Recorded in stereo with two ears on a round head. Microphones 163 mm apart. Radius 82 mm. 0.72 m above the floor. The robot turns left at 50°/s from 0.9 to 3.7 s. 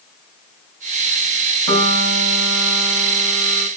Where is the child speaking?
No child speaking in this recording.